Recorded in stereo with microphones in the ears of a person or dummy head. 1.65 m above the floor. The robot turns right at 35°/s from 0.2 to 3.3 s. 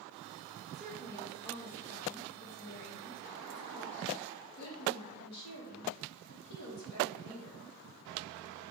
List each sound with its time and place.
0.7 s a woman speaking: 5° right, 1.2 m; by 7.7 s 85° left, 1.2 m